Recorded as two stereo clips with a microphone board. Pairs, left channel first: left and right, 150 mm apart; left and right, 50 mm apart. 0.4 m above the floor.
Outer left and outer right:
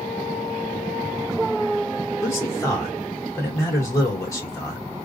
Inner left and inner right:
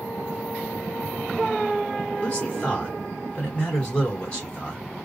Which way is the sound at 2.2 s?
20° left (ahead or behind).